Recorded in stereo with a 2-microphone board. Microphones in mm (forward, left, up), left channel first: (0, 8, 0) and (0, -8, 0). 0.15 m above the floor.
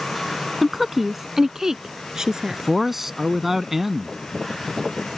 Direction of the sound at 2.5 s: 15° right (ahead or behind).